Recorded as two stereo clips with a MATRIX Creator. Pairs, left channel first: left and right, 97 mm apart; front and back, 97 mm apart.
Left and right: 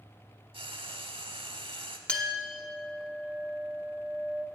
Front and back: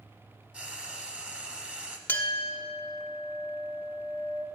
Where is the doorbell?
No doorbell in this recording.